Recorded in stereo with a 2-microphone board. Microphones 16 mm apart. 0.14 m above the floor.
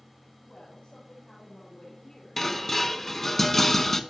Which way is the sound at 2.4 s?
20° left (ahead or behind).